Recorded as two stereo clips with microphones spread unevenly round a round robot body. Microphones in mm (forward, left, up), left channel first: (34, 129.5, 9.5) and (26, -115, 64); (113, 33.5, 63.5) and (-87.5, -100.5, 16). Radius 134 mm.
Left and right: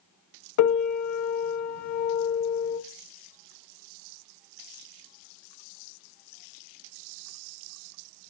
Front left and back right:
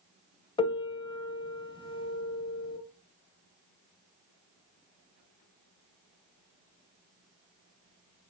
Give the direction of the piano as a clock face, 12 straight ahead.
8 o'clock.